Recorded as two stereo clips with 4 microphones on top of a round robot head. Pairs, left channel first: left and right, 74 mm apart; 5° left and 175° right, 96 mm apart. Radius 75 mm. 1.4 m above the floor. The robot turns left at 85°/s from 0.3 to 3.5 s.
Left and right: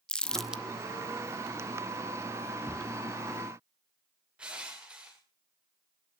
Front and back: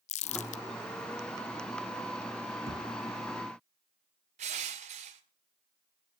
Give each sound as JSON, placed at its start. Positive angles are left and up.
{"t": 0.1, "sound": "crumpling", "azimuth_deg": 10, "distance_m": 0.7}
{"t": 2.7, "sound": "a thud", "azimuth_deg": -165, "distance_m": 1.1}
{"t": 4.4, "sound": "crushing", "azimuth_deg": -175, "distance_m": 1.7}